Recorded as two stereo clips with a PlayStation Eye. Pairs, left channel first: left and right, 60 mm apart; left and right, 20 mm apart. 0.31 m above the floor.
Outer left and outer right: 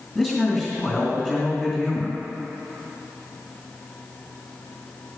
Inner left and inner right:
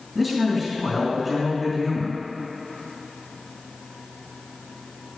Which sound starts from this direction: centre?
A man speaking, at 0.1 s.